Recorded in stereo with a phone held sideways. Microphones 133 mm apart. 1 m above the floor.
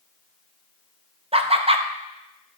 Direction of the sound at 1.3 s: 45° right (ahead or behind).